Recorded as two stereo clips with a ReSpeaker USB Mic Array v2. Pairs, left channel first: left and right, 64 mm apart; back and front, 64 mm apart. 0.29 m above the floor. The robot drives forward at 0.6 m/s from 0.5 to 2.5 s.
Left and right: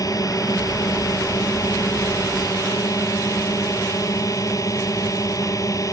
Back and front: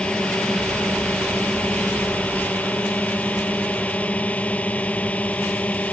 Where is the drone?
105° left; by 5.9 s 115° left.